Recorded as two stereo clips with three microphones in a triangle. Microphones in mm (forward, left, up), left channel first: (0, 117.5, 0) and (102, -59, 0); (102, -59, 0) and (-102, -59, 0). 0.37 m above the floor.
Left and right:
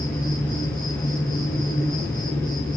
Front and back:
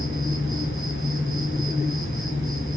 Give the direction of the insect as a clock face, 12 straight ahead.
11 o'clock.